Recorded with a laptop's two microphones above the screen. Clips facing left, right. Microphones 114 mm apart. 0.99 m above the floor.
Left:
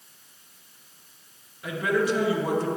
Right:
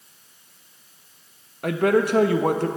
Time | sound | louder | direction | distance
1.6 | a man speaking | right 5 dB | 55° right (ahead or behind) | 0.6 m